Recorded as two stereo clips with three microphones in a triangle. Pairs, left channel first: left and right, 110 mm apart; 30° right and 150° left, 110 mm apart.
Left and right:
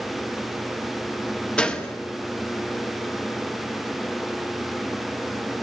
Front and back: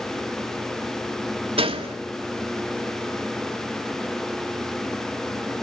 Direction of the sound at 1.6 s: 170° left.